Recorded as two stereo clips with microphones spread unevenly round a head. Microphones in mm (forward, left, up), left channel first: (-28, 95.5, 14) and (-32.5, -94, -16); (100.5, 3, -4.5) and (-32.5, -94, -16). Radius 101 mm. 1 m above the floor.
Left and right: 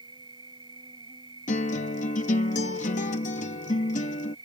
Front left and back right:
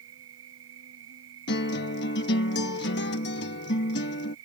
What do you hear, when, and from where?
0.0 s an insect: 160° right
1.5 s a guitar: 30° left